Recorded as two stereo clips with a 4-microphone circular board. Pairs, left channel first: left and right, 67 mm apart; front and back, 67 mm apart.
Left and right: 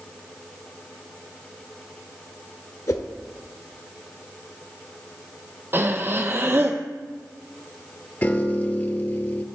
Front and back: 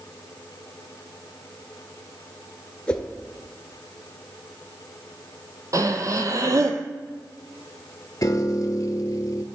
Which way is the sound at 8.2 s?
30° left.